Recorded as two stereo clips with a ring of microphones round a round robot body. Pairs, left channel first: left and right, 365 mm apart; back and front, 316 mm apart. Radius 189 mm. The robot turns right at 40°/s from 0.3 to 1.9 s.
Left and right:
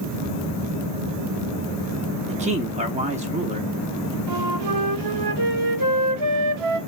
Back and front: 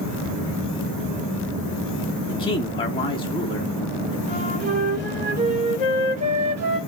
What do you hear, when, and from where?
2.3 s a man speaking: 130° right, 0.8 m
4.3 s a flute: 65° right, 1.2 m